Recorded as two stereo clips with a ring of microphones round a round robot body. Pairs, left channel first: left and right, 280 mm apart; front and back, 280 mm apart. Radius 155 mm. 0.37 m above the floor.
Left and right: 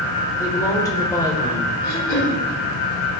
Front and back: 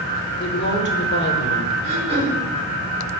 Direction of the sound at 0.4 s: 20° left.